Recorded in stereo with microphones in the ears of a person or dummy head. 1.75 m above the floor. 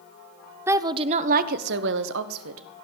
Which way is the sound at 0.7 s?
10° right (ahead or behind).